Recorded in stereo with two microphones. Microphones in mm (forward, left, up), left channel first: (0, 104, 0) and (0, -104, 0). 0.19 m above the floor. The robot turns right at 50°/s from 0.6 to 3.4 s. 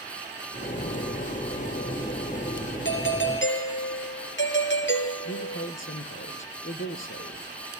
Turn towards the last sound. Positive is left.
turn(degrees=70)  # may be behind; listen again after turning